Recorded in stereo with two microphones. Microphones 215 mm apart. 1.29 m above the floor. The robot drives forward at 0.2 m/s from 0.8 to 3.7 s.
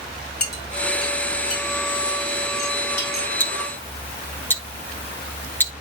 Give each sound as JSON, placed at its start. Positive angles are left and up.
{"t": 0.4, "sound": "a clink", "side_deg": 50, "distance_m": 5.5}
{"t": 3.4, "sound": "ticking", "side_deg": 10, "distance_m": 0.9}